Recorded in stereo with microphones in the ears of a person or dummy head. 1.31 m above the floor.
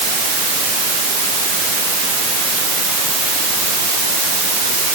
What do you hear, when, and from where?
Only background noise.